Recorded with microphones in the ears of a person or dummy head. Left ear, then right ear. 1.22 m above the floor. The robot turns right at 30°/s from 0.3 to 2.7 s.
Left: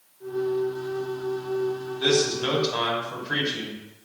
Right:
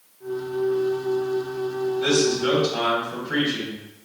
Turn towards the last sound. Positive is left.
turn(degrees=55)  # may be behind; listen again after turning